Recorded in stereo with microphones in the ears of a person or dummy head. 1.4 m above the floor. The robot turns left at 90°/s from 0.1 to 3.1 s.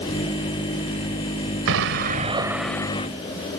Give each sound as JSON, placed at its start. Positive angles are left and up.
{"t": 1.7, "sound": "an explosion", "azimuth_deg": -90}